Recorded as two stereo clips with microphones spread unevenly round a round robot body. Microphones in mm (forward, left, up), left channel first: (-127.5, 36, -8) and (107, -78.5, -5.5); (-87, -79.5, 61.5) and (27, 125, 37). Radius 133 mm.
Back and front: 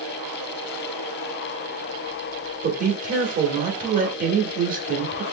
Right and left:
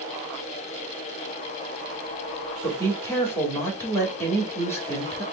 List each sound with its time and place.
2.6 s a woman speaking: 40° right, 1.3 m